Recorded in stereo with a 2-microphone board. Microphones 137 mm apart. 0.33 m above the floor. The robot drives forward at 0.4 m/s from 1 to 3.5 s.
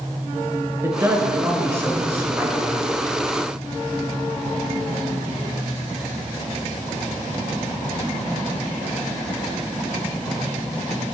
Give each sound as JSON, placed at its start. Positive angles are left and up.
{"t": 0.8, "sound": "a man speaking", "side_deg": -20, "distance_m": 4.0}